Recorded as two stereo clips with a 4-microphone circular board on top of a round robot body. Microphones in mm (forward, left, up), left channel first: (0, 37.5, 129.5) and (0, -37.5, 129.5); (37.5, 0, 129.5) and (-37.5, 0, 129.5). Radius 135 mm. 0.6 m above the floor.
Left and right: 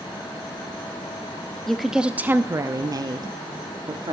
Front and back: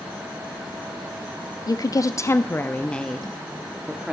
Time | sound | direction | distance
1.7 | a woman speaking | 5° left | 0.7 m